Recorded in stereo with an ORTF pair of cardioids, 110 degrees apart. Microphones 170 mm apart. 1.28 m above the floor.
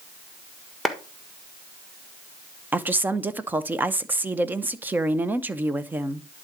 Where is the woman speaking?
10° right, 0.7 m.